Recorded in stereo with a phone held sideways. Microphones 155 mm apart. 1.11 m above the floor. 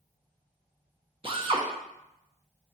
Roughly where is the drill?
Right.